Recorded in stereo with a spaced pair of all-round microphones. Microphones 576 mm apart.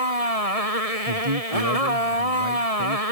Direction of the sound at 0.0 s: 70° left (ahead or behind).